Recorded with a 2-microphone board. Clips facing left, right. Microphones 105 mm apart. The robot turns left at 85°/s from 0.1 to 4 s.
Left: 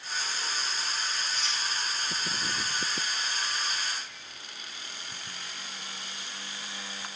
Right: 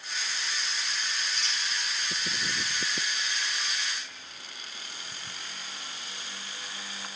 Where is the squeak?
70° right (ahead or behind), 2.0 m; by 1.6 s 50° right (ahead or behind), 2.0 m.